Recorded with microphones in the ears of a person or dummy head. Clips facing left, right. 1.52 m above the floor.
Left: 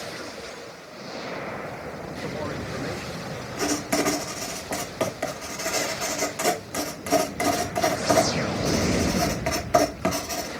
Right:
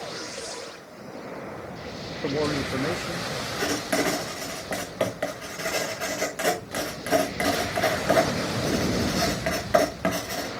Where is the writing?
20° right (ahead or behind), 1.4 m.